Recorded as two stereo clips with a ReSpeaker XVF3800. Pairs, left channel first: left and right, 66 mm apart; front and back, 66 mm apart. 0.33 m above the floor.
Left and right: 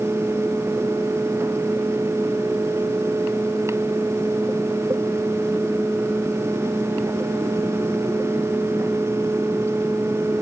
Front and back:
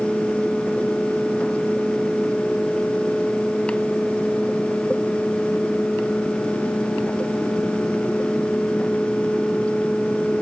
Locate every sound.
Only background noise.